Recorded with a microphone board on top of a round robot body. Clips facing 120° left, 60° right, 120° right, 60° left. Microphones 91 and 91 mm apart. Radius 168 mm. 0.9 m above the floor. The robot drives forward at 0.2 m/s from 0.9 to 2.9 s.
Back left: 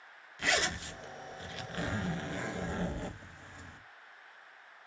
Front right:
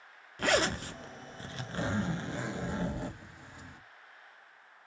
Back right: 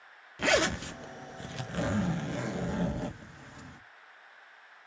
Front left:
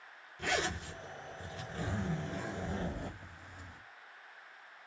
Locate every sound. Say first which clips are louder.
0.4 s a zipper: front right 5 dB, back right 8 dB; 105° right, 0.6 m; by 3.8 s 135° right, 0.8 m